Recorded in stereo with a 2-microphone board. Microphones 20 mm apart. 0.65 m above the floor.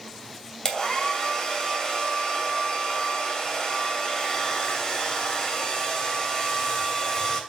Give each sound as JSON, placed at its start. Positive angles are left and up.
{"t": 0.7, "sound": "a hair dryer", "side_deg": 30, "distance_m": 2.5}